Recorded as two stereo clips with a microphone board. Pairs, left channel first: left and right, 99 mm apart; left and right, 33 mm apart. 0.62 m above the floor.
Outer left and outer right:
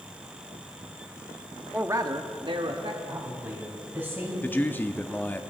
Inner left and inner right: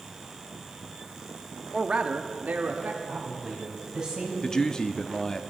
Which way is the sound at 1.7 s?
15° right (ahead or behind).